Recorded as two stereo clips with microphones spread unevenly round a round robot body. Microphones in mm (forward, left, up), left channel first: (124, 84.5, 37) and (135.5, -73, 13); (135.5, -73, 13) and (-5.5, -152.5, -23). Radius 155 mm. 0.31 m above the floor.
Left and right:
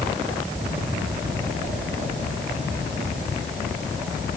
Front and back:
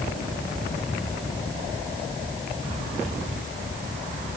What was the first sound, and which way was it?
Only background noise.